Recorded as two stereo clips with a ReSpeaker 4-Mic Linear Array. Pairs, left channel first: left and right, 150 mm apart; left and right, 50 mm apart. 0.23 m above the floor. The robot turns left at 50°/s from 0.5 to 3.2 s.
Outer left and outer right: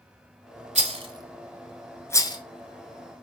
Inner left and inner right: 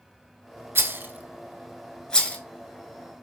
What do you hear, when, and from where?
0.8 s a rattle: 50° right (ahead or behind), 0.7 m; by 2.4 s 30° left (ahead or behind), 0.7 m